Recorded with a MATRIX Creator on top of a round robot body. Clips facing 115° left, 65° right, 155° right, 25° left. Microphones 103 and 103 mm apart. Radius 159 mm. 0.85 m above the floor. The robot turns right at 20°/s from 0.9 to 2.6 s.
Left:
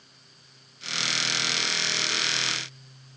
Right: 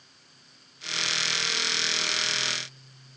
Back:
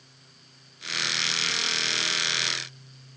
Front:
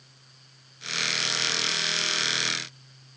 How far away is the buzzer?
No buzzer in this recording.